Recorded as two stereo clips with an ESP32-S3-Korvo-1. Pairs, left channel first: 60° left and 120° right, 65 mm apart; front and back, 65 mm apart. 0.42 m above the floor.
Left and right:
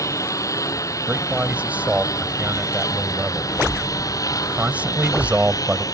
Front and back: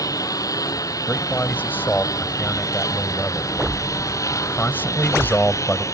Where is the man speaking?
55° right.